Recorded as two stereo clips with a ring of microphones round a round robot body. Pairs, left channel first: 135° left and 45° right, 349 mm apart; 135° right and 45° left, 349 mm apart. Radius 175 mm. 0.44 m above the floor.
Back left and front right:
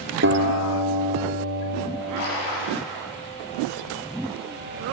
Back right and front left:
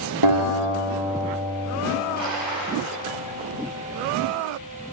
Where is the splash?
160° left, 5.5 m.